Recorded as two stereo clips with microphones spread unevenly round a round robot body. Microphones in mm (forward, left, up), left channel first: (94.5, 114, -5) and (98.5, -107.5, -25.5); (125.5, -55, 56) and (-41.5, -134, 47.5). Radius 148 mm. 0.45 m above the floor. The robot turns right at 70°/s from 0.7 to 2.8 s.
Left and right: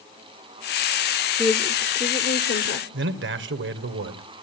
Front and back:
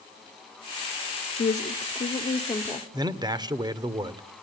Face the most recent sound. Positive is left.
turn(degrees=-90)